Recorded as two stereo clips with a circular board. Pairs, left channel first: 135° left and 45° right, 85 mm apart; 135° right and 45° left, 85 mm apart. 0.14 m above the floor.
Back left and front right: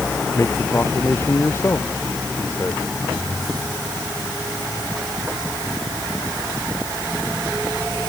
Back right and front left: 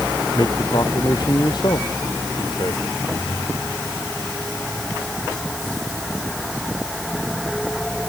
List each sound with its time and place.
0.3 s a man speaking: 165° right